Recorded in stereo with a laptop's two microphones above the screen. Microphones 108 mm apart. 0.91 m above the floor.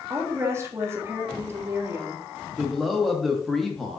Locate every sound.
0.1 s a woman speaking: 25° right (ahead or behind), 1.8 m
2.6 s a man speaking: centre (ahead or behind), 1.2 m